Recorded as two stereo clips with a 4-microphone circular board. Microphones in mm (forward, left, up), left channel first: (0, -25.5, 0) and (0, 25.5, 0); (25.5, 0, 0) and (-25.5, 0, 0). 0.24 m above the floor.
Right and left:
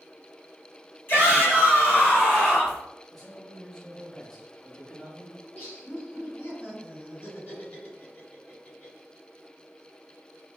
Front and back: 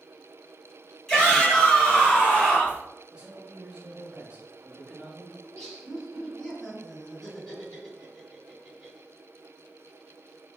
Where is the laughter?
75° right, 1.9 m.